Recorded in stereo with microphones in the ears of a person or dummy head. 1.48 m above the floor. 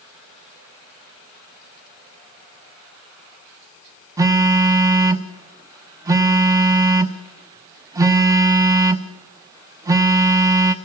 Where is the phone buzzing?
15° right (ahead or behind), 0.9 m.